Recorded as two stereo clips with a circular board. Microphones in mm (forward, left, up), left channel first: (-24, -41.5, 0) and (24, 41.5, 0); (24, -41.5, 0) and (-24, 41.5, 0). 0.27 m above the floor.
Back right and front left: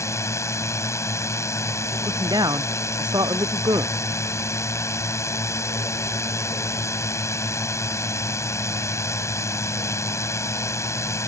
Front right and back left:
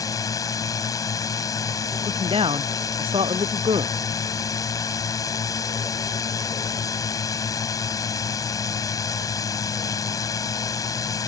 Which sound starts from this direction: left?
A man speaking, at 2.0 s.